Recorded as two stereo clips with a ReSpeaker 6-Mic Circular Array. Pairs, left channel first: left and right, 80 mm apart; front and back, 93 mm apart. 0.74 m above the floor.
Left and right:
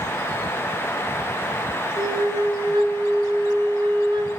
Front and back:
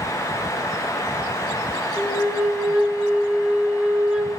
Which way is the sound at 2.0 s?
100° right.